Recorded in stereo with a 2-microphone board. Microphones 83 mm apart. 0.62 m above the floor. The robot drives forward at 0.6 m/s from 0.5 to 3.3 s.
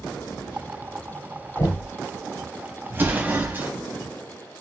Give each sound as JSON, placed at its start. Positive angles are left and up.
{"t": 1.6, "sound": "knocking", "side_deg": 45, "distance_m": 2.0}
{"t": 2.9, "sound": "an explosion", "side_deg": -30, "distance_m": 0.8}